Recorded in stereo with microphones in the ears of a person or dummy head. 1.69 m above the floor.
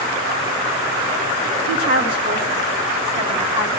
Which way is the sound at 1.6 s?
80° left.